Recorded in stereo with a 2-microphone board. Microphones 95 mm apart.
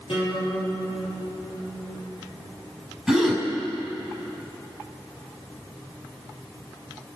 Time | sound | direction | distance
0.1 | a guitar | 75° left (ahead or behind) | 6.5 m
3.1 | a gasp | centre (ahead or behind) | 5 m